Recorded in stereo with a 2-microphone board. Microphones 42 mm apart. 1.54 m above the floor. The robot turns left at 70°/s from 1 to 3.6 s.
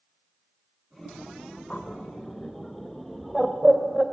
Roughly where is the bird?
Left.